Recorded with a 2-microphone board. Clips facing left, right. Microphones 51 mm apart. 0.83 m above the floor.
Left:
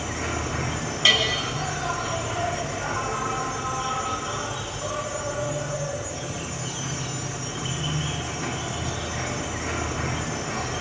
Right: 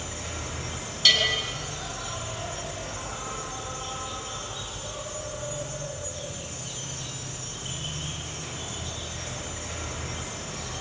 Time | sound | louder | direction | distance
0.0 | an insect | left 8 dB | 65° left (ahead or behind) | 3 m
1.1 | a bell | left 2 dB | 35° left (ahead or behind) | 4.5 m